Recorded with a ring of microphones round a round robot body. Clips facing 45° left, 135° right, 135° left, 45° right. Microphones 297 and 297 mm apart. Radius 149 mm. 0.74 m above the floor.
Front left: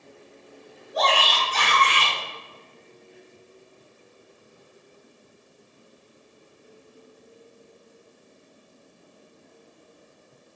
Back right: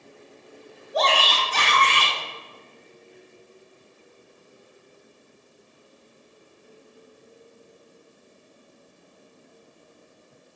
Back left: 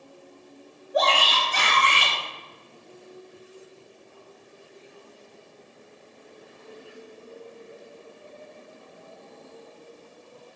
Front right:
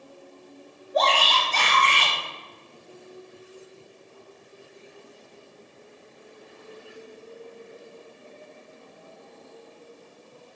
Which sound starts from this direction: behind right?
A shout, at 0.9 s.